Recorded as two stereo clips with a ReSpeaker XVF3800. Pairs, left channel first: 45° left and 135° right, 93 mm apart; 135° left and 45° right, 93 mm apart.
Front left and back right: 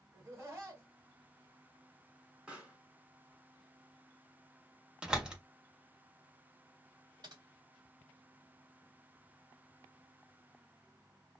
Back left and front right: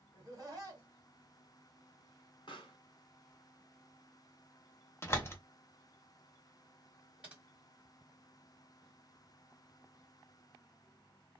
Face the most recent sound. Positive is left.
turn(degrees=-120)